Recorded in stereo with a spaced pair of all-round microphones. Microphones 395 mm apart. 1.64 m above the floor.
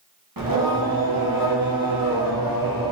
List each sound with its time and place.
0.4 s singing: 55° right (ahead or behind), 1.0 m